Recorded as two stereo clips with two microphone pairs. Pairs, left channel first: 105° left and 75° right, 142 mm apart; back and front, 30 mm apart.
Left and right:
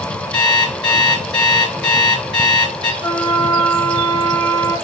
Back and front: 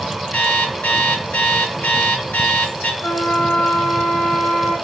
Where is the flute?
Straight behind, 5 m.